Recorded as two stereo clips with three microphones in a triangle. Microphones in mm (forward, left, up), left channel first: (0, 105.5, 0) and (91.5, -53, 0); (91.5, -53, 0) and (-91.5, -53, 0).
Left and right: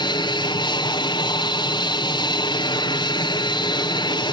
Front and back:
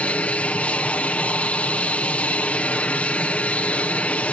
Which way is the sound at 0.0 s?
80° left.